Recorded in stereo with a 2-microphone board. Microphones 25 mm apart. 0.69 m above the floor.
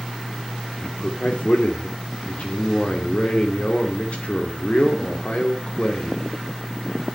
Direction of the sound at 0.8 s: 55° left (ahead or behind).